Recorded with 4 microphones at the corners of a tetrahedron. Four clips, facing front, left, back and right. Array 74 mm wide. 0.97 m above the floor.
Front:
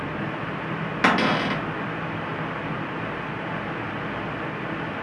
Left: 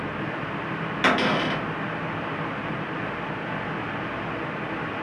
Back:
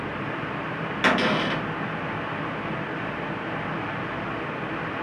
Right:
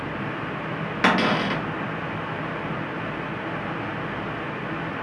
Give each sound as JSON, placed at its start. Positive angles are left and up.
{"t": 1.0, "sound": "a cupboard door", "azimuth_deg": -45, "distance_m": 0.7}